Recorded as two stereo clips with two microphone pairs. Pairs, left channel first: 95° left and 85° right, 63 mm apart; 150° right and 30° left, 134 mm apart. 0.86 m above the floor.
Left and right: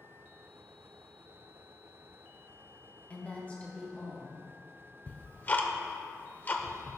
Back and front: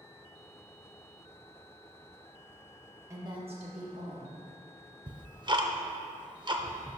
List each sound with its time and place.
3.1 s a woman speaking: 65° left, 1.0 m; by 4.4 s 20° left, 2.5 m
5.1 s ticking: 55° left, 0.6 m